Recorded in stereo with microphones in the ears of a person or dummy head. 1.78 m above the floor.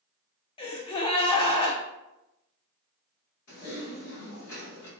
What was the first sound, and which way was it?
A gasp, 25° left (ahead or behind).